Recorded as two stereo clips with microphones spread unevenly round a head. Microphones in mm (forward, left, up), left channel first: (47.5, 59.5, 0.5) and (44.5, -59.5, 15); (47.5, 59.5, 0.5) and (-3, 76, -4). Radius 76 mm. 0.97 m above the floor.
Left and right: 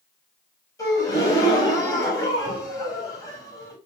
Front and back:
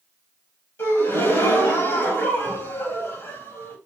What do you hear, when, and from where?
0.8 s a gasp: 25° left, 4 m